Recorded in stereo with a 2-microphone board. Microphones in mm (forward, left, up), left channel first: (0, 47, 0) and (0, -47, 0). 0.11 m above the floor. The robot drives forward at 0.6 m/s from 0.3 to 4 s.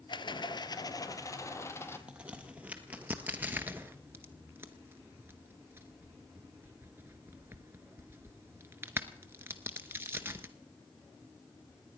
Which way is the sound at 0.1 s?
55° left (ahead or behind).